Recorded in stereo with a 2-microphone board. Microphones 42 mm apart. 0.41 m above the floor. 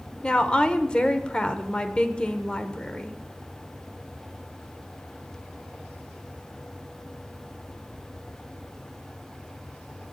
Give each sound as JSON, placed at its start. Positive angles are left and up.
{"t": 0.2, "sound": "a woman speaking", "side_deg": 25, "distance_m": 0.9}